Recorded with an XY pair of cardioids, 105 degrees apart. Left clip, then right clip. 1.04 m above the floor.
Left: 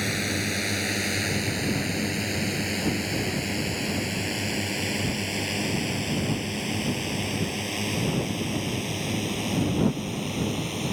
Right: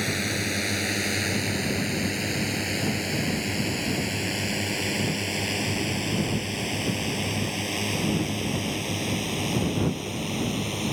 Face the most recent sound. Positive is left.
turn(degrees=-15)